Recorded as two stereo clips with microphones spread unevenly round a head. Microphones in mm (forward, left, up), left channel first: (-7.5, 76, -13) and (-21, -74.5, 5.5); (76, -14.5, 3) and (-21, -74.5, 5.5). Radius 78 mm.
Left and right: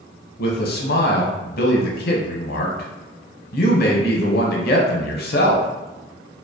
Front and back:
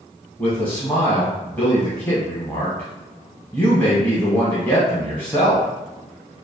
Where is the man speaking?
110° left, 0.7 m.